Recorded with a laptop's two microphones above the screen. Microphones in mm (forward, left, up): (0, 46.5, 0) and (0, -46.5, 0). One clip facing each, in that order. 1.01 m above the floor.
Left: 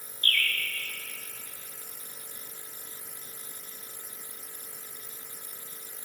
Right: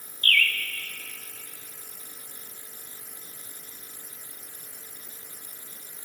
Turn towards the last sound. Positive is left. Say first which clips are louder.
# right 5 dB
turn(degrees=30)  # may be behind; listen again after turning